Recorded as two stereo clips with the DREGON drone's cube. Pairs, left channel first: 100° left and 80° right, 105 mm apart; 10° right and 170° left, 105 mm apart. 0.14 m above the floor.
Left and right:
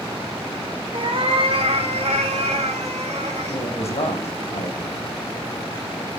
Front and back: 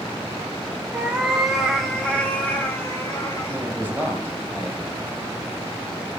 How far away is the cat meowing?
About 3 m.